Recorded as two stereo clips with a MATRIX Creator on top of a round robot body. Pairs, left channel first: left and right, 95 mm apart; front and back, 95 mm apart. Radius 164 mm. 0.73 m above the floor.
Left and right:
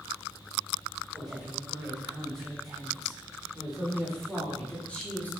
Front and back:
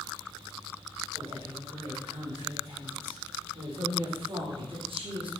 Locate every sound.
1.1 s a woman speaking: 175° right, 4 m; by 5.3 s 165° left, 1.8 m